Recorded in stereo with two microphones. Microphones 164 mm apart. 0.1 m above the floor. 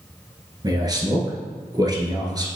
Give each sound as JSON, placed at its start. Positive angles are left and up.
{"t": 0.6, "sound": "a man speaking", "side_deg": -25, "distance_m": 1.4}